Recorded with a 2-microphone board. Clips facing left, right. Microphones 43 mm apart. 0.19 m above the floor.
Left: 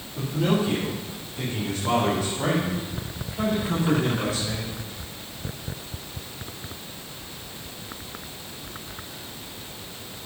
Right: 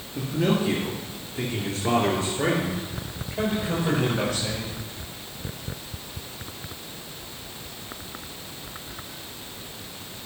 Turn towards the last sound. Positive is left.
turn(degrees=-65)  # may be behind; listen again after turning